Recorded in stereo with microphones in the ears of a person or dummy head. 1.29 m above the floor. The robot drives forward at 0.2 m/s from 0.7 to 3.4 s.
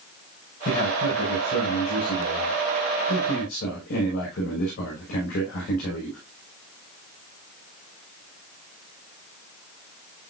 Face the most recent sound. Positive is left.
turn(degrees=45)  # may be behind; listen again after turning